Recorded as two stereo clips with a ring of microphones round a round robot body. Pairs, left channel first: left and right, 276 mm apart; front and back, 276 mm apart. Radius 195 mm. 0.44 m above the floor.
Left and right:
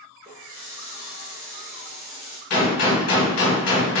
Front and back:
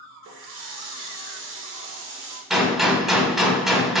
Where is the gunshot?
90° left, 1.4 m.